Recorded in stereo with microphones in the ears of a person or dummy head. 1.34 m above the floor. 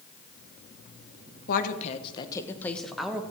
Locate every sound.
1.5 s a woman speaking: 55° left (ahead or behind), 1.3 m; by 3.2 s centre (ahead or behind), 1.8 m